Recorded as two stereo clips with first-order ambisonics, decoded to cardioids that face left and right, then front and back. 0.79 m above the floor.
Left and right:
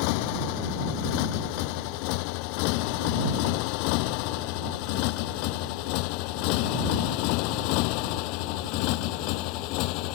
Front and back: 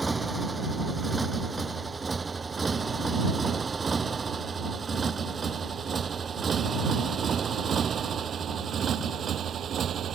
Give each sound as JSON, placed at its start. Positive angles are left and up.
{"t": 0.0, "sound": "a motorcycle", "azimuth_deg": 95}